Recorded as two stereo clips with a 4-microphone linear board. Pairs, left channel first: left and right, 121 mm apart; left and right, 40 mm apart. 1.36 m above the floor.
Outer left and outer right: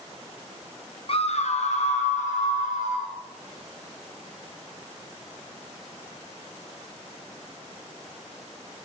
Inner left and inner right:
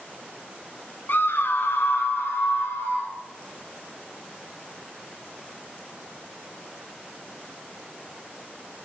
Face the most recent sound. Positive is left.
turn(degrees=80)